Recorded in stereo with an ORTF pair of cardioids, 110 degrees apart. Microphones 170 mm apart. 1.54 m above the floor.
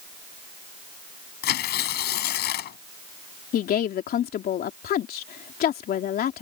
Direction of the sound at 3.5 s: 60° left.